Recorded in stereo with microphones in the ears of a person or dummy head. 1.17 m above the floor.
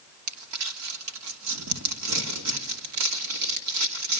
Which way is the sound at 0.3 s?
85° right.